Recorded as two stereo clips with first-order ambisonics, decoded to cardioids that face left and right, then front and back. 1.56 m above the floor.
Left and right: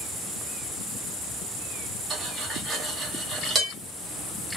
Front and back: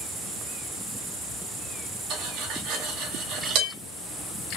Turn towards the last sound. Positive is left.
turn(degrees=-165)